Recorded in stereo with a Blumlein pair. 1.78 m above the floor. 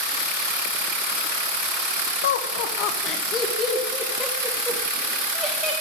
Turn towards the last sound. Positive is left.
turn(degrees=0)